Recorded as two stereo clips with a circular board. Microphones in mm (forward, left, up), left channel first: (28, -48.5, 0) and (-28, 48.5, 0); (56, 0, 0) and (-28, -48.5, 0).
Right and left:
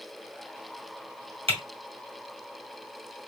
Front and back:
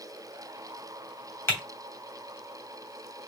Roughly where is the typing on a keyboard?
Left.